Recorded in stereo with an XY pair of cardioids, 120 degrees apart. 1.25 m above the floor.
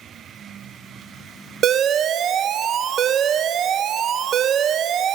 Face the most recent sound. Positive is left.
turn(degrees=-55)